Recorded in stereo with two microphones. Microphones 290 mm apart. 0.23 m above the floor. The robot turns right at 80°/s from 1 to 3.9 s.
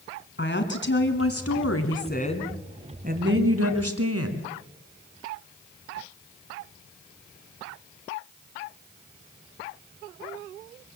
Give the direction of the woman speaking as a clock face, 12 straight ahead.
10 o'clock.